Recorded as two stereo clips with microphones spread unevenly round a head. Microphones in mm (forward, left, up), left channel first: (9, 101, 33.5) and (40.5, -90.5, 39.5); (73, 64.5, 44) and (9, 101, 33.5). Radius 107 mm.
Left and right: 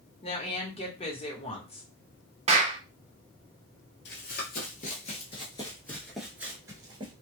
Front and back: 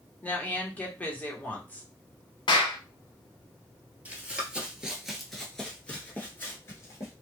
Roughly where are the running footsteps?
Left.